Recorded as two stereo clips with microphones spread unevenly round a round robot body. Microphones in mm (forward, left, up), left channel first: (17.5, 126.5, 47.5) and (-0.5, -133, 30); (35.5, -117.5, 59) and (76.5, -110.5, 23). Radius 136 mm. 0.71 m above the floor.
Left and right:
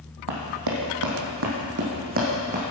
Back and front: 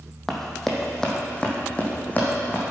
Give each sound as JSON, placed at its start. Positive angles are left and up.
{"t": 0.3, "sound": "running footsteps", "azimuth_deg": -110, "distance_m": 1.7}